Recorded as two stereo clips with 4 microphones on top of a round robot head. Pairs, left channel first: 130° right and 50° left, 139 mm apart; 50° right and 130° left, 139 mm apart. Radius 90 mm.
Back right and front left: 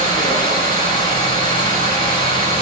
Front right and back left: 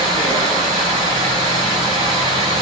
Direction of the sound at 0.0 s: 170° left.